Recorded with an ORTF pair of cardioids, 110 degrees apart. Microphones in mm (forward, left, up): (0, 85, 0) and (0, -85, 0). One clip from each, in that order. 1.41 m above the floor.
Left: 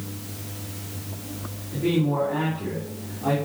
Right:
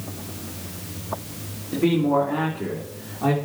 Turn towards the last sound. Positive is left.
turn(degrees=-65)